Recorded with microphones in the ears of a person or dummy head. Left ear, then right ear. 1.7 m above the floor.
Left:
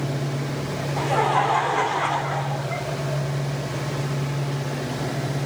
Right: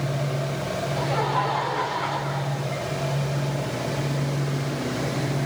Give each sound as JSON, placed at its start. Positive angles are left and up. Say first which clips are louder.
{"t": 1.0, "sound": "laughter", "louder": "left 5 dB", "side_deg": 25, "distance_m": 1.0}